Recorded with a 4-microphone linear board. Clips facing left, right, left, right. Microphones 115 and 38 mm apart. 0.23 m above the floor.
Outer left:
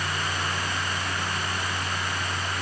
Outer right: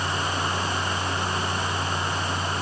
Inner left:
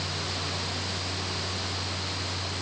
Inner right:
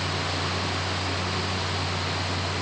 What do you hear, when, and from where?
Only background noise.